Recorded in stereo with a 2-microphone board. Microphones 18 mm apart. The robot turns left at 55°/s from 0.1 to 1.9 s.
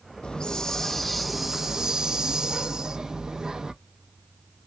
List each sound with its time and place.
0.2 s a hiss: 55° left, 0.6 m; by 3.7 s 35° right, 0.6 m